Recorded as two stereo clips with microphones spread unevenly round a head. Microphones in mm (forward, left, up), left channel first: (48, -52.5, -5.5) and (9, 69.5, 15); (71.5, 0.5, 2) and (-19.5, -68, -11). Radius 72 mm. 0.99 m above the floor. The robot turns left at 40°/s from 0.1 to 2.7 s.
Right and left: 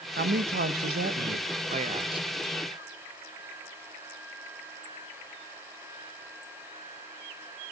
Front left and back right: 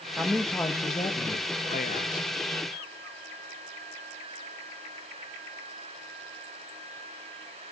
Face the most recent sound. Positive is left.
turn(degrees=35)